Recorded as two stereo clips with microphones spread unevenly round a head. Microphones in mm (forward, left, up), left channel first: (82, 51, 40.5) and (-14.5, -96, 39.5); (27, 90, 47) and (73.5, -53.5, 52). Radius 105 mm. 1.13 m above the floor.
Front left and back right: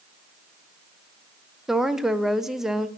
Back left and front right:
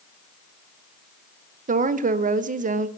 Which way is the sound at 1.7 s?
35° right.